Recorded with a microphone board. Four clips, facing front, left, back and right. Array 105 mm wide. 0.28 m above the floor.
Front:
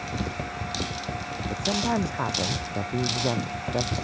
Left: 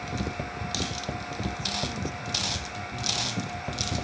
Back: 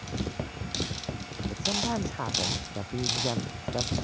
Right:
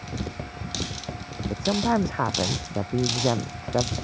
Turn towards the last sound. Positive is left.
turn(degrees=-80)